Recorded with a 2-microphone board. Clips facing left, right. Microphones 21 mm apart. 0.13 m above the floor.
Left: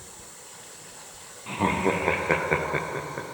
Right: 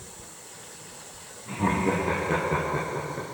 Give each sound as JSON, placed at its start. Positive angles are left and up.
{"t": 1.5, "sound": "laughter", "side_deg": 70, "distance_m": 3.0}